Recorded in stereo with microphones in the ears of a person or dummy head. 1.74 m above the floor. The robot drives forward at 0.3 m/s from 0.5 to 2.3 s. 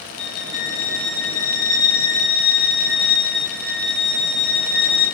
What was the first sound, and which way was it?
A violin, 45° left (ahead or behind).